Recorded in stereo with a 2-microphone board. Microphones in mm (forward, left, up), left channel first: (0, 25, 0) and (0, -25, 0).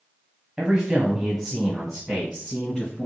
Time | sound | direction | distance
0.6 | a man speaking | 15° right (ahead or behind) | 1.2 m